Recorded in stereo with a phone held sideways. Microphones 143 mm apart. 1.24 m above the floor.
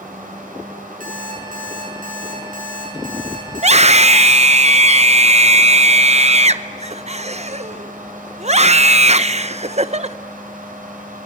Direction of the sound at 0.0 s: 75° right (ahead or behind).